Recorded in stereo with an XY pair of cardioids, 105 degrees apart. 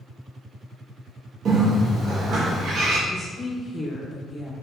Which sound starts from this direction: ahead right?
A bird, at 1.4 s.